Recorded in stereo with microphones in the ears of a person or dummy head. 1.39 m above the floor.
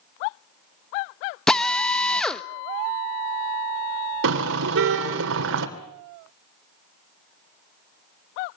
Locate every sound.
1.5 s a drill: 5° left (ahead or behind), 1.1 m
4.2 s a car horn: 70° right (ahead or behind), 3 m